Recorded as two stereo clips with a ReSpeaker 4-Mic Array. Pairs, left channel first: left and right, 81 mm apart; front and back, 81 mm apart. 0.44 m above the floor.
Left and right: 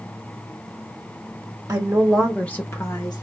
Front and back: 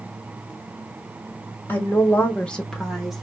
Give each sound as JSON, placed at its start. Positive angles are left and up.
{"t": 1.7, "sound": "a woman speaking", "azimuth_deg": -50, "distance_m": 0.9}